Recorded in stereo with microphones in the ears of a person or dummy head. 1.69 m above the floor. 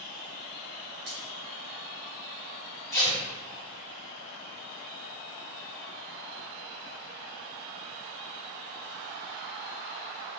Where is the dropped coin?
30° right (ahead or behind), 1.5 m.